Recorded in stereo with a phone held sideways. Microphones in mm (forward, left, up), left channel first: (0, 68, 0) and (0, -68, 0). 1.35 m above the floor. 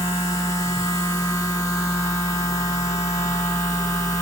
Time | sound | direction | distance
0.0 | a machine running | 25° left (ahead or behind) | 1.6 m